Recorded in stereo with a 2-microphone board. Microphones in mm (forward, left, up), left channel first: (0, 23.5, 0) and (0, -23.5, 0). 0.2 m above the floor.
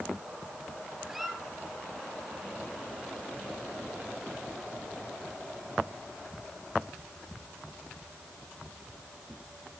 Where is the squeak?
5° right (ahead or behind), 1.9 m.